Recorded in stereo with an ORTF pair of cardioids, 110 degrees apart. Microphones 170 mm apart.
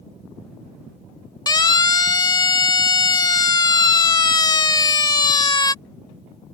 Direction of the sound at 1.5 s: 25° left.